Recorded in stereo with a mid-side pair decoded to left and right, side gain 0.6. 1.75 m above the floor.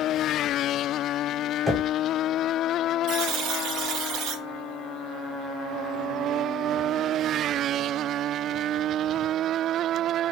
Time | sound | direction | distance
1.7 | knocking | 10° right | 1.3 m
3.1 | a buzzer | 65° right | 0.6 m